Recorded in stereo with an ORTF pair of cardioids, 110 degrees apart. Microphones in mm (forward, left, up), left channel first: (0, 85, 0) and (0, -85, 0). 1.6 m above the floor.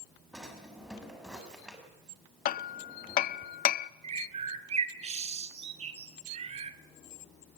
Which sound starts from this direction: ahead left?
Hammering, at 2.5 s.